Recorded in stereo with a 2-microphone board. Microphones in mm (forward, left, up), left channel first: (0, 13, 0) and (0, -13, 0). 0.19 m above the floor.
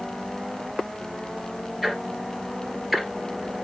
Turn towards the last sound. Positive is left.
turn(degrees=-5)  # may be behind; listen again after turning